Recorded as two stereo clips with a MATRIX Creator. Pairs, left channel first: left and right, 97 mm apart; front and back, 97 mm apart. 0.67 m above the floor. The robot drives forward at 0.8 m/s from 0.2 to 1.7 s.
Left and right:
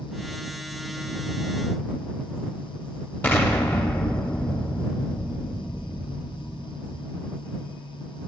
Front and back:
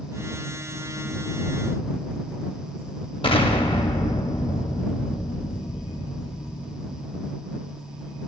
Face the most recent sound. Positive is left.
turn(degrees=20)